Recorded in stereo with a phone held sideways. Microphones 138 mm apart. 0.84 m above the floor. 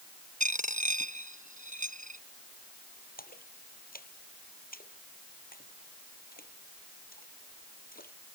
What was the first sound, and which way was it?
A dropped coin, 65° right (ahead or behind).